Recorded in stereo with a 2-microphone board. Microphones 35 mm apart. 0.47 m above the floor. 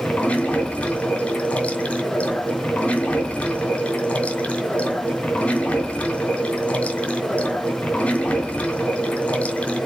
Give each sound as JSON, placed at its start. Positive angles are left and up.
{"t": 0.0, "sound": "running water", "side_deg": 45, "distance_m": 1.7}